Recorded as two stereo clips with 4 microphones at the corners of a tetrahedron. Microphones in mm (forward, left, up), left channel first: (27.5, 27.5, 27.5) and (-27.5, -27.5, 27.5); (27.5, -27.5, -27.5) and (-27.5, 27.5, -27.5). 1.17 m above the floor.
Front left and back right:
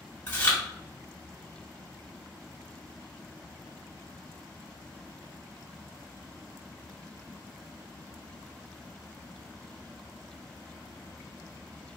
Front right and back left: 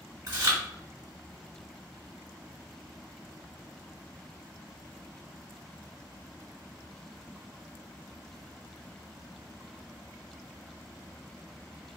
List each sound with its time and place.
0.3 s chewing: 105° left, 1.2 m